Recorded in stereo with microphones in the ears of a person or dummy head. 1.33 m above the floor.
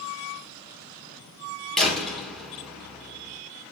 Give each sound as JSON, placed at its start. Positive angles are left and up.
{"t": 1.8, "sound": "a door slam", "side_deg": -5, "distance_m": 3.0}